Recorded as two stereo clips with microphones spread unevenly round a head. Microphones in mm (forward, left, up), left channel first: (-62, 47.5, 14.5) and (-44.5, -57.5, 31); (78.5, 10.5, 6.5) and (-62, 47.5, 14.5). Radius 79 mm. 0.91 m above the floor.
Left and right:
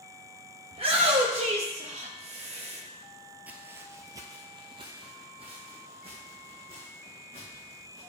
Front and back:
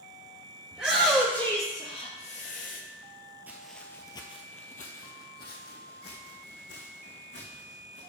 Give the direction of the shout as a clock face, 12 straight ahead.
4 o'clock.